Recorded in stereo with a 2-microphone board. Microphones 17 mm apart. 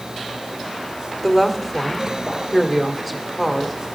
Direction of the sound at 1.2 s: Centre (ahead or behind).